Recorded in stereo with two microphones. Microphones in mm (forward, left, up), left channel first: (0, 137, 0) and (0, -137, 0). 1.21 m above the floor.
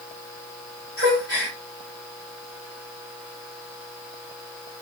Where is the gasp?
50° right (ahead or behind), 1.7 m.